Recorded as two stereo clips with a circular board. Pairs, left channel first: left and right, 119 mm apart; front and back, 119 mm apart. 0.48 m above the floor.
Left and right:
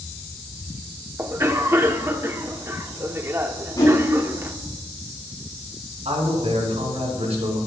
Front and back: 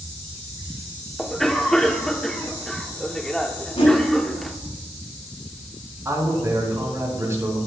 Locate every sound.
1.2 s a cough: 80° right, 0.7 m
3.8 s a whoosh: 35° left, 5.5 m
6.0 s a man speaking: 115° right, 4.5 m